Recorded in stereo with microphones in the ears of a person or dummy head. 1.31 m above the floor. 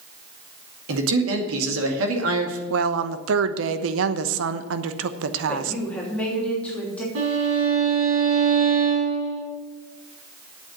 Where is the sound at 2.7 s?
85° right, 0.9 m.